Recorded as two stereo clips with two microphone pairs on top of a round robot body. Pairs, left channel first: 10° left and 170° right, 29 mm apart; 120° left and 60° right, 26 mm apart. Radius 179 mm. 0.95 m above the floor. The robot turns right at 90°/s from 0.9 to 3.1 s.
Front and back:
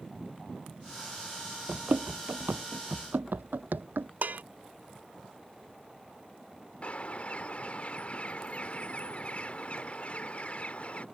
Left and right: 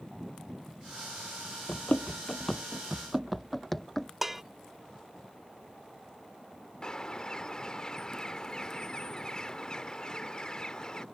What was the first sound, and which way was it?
Running footsteps, 160° left.